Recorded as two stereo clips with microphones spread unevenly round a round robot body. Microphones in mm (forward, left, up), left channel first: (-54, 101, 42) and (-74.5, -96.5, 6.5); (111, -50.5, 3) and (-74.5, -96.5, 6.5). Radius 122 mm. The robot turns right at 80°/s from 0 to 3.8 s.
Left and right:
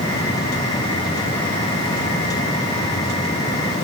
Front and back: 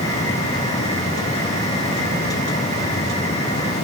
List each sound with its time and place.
Only background noise.